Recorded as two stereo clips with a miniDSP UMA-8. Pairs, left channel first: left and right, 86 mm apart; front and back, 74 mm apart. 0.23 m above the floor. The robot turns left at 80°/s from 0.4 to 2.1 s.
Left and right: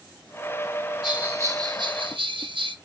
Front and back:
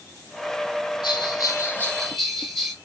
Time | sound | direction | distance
1.0 | a bell | 10° right | 1.0 m